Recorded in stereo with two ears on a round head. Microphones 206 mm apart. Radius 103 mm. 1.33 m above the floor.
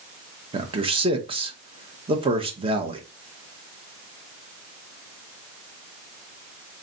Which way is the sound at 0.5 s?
25° right (ahead or behind).